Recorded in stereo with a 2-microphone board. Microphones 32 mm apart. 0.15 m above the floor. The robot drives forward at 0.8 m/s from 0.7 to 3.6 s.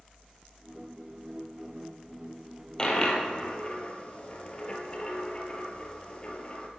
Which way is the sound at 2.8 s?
25° left (ahead or behind).